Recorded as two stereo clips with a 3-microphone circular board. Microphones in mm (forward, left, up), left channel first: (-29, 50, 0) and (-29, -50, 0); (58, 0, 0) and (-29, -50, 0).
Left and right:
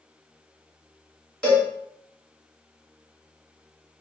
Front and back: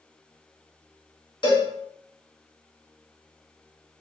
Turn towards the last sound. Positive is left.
turn(degrees=15)